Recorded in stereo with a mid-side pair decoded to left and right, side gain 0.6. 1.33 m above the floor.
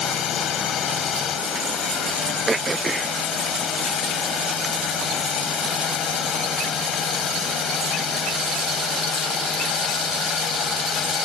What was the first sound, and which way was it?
A drone, 50° left.